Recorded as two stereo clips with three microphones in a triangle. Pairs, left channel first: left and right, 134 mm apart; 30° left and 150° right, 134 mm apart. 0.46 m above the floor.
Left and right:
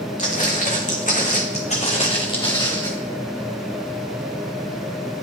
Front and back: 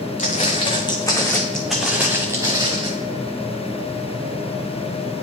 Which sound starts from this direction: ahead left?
Footsteps, at 0.2 s.